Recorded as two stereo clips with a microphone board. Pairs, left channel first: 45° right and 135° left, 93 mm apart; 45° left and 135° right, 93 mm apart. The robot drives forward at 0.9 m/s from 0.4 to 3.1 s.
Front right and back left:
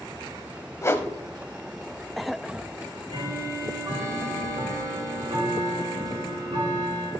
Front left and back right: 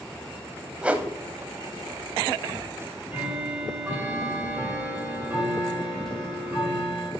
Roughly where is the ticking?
Behind left.